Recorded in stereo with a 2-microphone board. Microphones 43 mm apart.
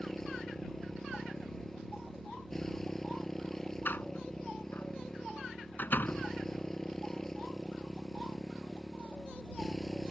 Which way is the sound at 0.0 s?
10° left (ahead or behind).